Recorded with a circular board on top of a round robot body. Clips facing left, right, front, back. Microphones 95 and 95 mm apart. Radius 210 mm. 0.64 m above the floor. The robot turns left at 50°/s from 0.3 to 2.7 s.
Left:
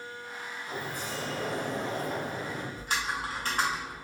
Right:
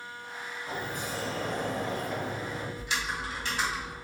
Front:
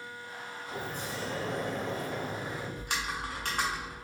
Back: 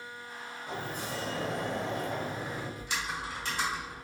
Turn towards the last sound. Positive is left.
turn(degrees=40)